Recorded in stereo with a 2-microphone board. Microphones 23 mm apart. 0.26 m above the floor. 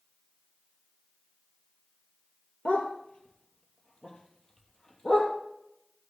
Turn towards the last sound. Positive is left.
turn(degrees=25)  # may be behind; listen again after turning